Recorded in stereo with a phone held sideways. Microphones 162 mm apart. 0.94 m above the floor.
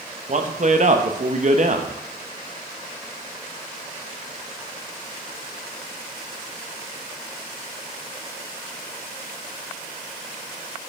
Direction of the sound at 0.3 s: 50° right (ahead or behind).